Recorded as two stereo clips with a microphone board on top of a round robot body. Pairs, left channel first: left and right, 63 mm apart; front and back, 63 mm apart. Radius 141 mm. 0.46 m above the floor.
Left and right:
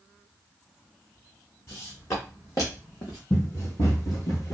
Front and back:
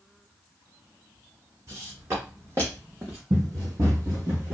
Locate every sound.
1.7 s footsteps: 135° left, 1.4 m; by 3.2 s 100° left, 0.7 m
3.3 s running footsteps: 140° left, 1.4 m; by 4.6 s 125° left, 0.9 m